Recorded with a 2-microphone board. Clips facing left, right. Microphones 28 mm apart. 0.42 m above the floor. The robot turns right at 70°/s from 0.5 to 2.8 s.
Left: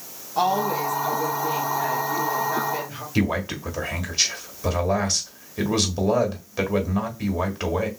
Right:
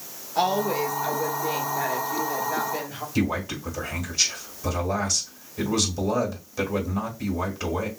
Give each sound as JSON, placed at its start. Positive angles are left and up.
{"t": 0.3, "sound": "a woman speaking", "azimuth_deg": -140, "distance_m": 1.6}
{"t": 3.1, "sound": "a man speaking", "side_deg": 35, "distance_m": 1.3}